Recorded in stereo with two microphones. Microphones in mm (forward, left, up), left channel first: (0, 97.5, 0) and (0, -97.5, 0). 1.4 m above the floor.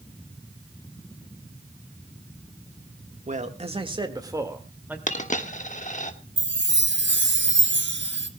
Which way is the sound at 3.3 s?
40° right (ahead or behind).